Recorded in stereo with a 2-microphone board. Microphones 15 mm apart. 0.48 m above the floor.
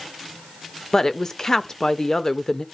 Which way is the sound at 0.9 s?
30° left (ahead or behind).